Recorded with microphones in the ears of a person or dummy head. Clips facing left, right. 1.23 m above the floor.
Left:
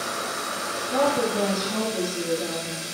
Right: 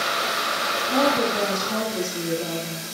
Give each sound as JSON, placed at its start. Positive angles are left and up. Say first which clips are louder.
{"t": 0.9, "sound": "a woman speaking", "louder": "right 1 dB", "side_deg": -40, "distance_m": 1.7}